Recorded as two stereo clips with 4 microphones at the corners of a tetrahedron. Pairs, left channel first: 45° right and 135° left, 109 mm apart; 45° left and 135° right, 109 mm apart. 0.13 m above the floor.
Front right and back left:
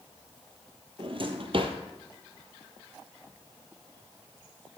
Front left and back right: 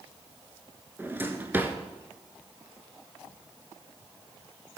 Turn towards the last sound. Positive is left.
turn(degrees=155)